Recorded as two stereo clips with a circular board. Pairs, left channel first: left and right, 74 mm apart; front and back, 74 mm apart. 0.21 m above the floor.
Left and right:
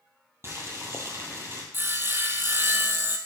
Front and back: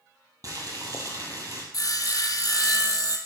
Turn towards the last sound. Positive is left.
turn(degrees=-30)